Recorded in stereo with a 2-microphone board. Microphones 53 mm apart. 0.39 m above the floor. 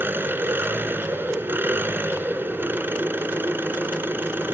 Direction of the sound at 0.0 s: 40° right (ahead or behind).